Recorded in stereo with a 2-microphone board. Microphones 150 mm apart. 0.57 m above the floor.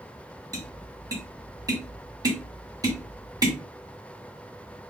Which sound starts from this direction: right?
Tapping, at 0.5 s.